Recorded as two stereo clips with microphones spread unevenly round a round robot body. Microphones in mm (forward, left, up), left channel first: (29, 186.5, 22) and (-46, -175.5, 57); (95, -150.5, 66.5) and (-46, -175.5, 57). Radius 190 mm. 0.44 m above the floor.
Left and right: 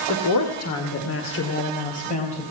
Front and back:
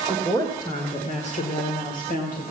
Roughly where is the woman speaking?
Left.